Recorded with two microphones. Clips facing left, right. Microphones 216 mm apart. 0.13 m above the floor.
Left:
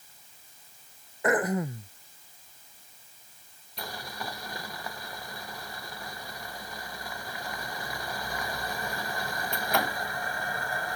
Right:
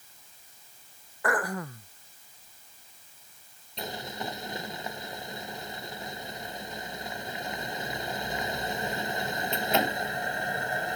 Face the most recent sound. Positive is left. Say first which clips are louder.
# right 3 dB
turn(degrees=-20)  # may be behind; listen again after turning